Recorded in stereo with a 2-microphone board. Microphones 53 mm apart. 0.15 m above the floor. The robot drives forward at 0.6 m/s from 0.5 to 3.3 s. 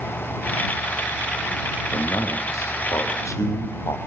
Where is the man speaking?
75° left (ahead or behind), 4 m.